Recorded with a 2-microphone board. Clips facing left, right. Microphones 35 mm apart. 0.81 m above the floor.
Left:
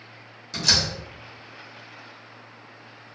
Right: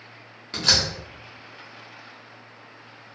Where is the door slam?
35° right (ahead or behind), 0.9 m.